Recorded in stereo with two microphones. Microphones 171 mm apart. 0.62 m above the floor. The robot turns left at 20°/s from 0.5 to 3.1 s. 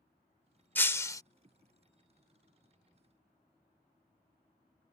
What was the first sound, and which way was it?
Breaking glass, 10° left (ahead or behind).